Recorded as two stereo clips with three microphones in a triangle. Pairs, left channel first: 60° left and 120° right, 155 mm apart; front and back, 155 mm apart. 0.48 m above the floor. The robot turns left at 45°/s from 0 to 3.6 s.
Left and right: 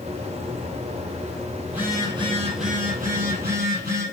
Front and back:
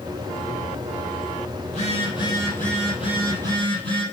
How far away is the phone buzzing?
About 3 m.